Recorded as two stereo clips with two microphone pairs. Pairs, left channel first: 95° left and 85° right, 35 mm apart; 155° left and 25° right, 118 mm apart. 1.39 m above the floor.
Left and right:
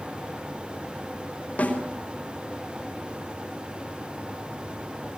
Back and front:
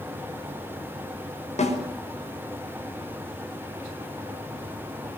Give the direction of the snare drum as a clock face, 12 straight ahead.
7 o'clock.